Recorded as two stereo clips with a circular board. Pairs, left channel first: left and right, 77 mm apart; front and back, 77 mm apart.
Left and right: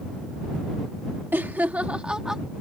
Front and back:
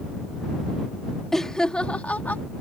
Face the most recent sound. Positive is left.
turn(degrees=-10)